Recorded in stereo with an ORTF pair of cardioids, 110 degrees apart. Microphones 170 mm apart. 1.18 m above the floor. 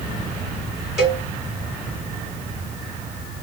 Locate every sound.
1.0 s a cowbell: 5° right, 1.7 m